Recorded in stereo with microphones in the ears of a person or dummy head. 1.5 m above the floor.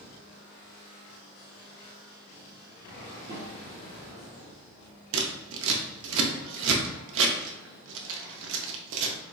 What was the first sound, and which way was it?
A snare drum, 25° right (ahead or behind).